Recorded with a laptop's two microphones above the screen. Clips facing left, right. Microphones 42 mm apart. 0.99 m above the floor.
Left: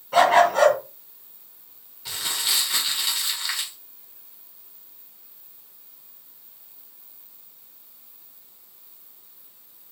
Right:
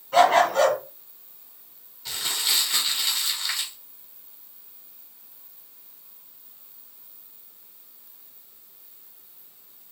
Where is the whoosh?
I don't hear a whoosh.